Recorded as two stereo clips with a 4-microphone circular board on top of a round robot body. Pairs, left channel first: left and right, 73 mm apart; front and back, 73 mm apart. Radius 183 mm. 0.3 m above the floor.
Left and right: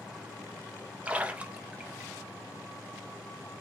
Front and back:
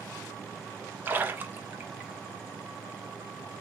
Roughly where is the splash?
Behind right.